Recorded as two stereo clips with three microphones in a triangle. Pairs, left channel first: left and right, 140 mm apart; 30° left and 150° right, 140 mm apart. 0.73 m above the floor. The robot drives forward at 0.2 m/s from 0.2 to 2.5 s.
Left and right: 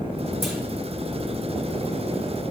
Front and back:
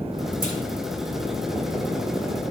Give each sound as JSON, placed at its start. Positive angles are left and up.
{"t": 0.4, "sound": "a clunk", "azimuth_deg": 0, "distance_m": 1.1}